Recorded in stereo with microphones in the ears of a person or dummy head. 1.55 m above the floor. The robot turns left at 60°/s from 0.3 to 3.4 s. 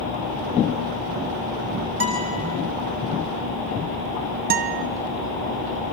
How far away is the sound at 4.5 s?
About 0.7 m.